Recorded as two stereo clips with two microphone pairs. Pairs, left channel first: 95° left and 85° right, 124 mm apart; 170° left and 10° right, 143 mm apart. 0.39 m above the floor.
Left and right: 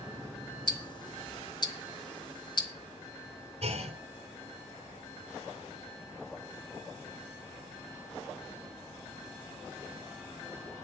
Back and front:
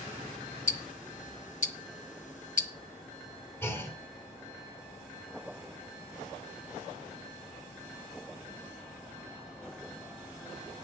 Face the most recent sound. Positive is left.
turn(degrees=-120)